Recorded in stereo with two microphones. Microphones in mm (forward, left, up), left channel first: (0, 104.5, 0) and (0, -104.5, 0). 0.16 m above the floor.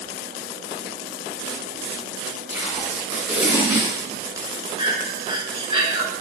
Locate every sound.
2.5 s tape being pulled: 10° right (ahead or behind), 1.6 m
4.8 s breathing: 25° right (ahead or behind), 0.5 m